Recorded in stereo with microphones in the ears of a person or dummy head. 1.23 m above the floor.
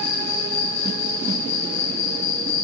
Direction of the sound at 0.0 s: 85° left.